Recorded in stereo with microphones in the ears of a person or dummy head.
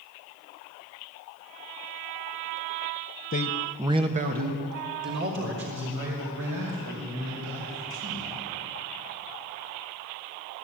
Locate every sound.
3.3 s a man speaking: 40° left (ahead or behind), 0.8 m; by 8.2 s 70° right (ahead or behind), 7.5 m